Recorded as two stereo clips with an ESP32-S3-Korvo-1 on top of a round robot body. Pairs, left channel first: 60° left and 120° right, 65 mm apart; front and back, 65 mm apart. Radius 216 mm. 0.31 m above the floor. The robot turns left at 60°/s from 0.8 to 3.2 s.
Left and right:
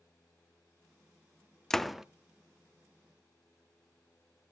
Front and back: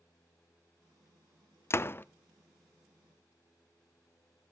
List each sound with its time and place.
1.7 s a door slam: 15° right, 0.6 m; by 2.0 s 40° right, 0.6 m